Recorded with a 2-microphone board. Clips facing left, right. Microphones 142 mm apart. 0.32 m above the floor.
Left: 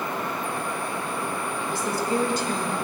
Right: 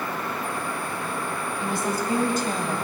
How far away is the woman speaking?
About 1.8 m.